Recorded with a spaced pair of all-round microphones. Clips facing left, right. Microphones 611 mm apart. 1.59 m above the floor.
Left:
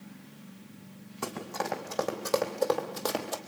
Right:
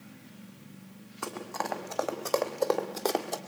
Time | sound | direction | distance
1.2 | running footsteps | 50° left (ahead or behind) | 4 m